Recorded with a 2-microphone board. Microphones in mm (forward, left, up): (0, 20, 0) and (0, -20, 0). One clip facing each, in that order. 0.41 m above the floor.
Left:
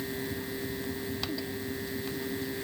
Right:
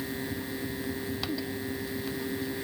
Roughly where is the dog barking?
I don't hear a dog barking.